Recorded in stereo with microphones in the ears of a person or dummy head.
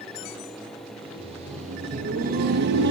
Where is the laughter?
30° right (ahead or behind), 2 m; by 2.9 s 65° right (ahead or behind), 1.8 m.